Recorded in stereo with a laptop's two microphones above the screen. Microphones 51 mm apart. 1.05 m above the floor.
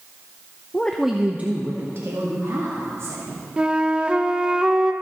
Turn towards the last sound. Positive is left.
turn(degrees=-15)  # may be behind; listen again after turning